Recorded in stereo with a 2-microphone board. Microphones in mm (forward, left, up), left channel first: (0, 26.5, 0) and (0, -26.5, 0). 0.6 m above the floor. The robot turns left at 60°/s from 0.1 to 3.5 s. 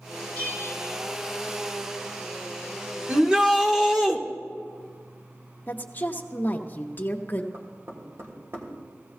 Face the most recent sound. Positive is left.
turn(degrees=-50)  # may be behind; listen again after turning